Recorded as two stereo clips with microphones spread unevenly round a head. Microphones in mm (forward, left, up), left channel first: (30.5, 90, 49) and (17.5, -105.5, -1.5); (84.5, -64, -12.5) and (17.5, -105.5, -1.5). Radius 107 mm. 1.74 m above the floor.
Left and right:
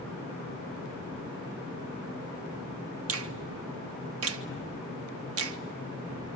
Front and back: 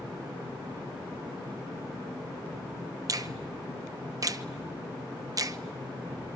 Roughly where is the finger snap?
Behind right.